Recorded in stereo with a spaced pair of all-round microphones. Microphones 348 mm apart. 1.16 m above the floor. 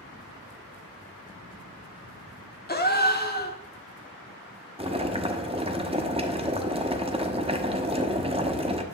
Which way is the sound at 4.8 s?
15° right (ahead or behind).